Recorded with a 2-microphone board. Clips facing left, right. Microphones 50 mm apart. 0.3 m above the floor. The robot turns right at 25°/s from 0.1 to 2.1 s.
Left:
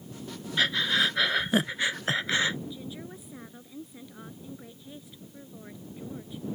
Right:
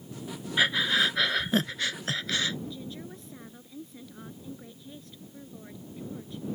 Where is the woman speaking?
10° left (ahead or behind).